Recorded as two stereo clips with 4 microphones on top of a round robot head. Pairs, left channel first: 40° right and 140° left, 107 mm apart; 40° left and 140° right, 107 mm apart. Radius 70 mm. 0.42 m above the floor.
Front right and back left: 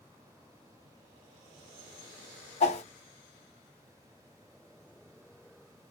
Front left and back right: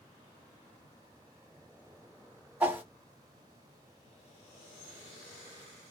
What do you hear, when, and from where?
2.6 s a whoosh: 65° right, 1.1 m